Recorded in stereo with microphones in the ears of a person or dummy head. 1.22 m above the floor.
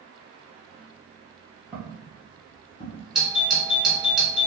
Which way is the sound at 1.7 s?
10° right (ahead or behind).